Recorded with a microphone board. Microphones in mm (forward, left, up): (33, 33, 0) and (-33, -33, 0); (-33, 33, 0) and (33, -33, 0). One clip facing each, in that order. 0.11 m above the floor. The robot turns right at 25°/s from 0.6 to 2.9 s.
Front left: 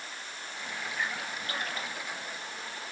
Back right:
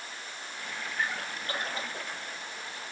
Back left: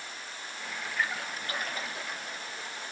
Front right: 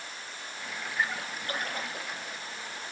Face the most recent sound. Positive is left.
turn(degrees=-50)